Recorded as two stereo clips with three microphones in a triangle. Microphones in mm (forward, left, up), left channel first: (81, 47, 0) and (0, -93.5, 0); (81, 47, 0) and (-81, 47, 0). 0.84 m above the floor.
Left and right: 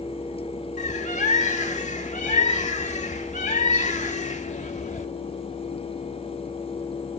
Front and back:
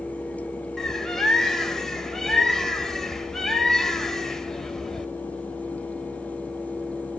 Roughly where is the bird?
Left.